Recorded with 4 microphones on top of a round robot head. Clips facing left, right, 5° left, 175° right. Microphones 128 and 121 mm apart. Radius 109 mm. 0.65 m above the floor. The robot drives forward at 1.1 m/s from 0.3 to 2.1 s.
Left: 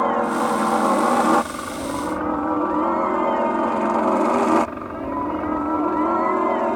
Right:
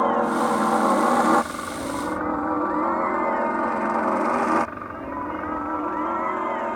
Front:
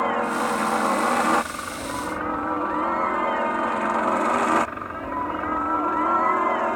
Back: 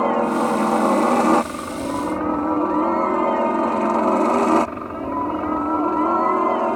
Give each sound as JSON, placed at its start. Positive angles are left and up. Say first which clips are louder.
{"t": 0.0, "sound": "a helicopter", "louder": "left 1 dB, back 5 dB", "azimuth_deg": 180}